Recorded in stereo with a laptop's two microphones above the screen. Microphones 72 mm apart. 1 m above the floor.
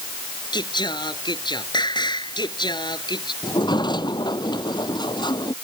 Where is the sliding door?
80° left.